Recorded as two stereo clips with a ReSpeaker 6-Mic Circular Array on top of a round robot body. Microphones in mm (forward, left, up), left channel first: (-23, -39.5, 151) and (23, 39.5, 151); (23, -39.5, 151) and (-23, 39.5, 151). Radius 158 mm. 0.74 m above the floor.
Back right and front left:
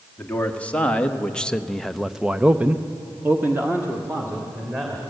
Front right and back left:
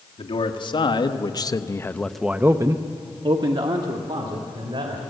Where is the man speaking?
45° right, 2 m; by 5.0 s 130° left, 3 m.